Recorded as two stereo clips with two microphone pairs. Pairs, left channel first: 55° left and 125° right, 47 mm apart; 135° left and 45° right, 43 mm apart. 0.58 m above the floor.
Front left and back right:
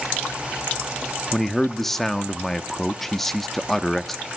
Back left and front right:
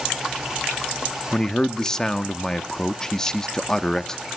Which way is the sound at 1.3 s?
130° left.